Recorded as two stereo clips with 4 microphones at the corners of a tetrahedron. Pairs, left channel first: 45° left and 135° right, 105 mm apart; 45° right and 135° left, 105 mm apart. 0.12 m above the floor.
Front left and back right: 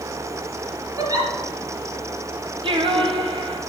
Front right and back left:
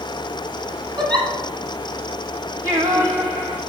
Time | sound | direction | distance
1.0 | a giggle | 175° left | 2.5 m
2.6 | singing | 165° right | 1.5 m